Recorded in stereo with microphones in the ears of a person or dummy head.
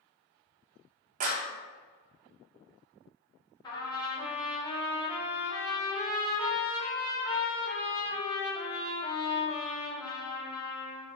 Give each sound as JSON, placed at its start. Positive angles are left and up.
{"t": 1.2, "sound": "a clap", "side_deg": -45, "distance_m": 0.5}
{"t": 3.6, "sound": "a trumpet", "side_deg": 25, "distance_m": 1.0}